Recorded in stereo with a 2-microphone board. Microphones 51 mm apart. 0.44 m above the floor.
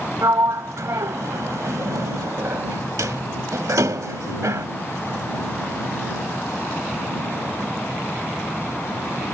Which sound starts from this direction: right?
A sliding door, at 0.2 s.